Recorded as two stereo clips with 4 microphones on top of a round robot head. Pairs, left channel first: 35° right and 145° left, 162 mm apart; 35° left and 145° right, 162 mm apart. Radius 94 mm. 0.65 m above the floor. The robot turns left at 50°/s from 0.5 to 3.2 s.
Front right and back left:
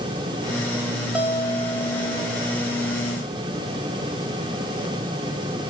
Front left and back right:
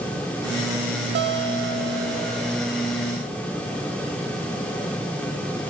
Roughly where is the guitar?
Behind right.